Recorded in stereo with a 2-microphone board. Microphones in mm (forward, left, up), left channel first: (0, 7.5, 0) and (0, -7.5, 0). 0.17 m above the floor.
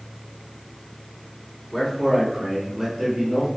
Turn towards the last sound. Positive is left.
turn(degrees=-40)  # may be behind; listen again after turning